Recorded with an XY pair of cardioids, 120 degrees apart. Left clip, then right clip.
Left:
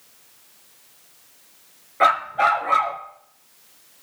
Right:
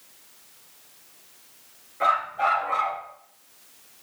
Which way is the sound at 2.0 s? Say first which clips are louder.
Left 5 dB; 60° left.